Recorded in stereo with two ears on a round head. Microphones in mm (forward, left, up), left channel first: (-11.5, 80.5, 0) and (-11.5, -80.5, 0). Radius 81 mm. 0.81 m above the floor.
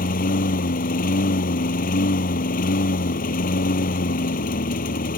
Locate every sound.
0.0 s a lawn mower: 50° left (ahead or behind)